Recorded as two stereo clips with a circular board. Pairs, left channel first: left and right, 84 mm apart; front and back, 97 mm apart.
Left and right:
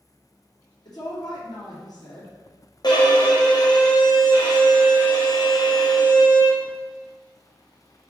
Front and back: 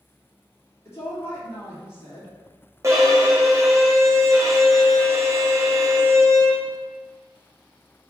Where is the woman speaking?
60° left, 3 m.